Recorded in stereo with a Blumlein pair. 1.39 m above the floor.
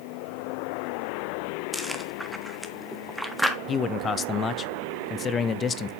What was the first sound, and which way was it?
Chewing, straight ahead.